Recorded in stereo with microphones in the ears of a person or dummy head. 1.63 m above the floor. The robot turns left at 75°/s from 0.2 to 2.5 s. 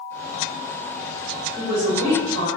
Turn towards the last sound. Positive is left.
turn(degrees=-90)